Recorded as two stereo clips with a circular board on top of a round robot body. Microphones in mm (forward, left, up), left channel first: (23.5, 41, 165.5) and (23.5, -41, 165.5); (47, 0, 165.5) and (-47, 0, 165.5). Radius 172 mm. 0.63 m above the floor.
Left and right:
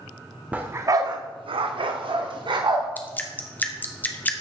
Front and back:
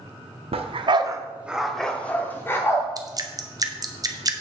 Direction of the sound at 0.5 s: 165° right.